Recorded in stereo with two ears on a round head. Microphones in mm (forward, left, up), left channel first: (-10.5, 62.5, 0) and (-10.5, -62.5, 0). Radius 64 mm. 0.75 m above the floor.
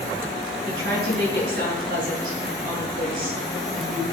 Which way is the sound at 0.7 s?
65° right (ahead or behind).